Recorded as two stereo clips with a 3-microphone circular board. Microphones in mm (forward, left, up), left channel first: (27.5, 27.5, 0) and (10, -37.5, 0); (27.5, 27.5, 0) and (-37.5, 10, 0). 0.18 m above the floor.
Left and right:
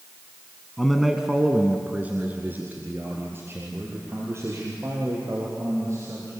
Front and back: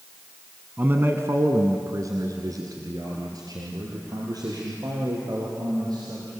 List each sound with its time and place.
0.8 s a man speaking: 155° left, 1.2 m; by 6.3 s 150° right, 5.5 m